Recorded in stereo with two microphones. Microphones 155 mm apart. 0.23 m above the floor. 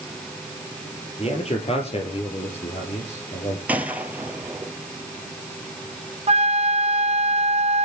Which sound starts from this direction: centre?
A gunshot, at 3.7 s.